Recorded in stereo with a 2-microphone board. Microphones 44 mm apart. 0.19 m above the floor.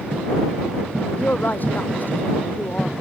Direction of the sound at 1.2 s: 45° left (ahead or behind).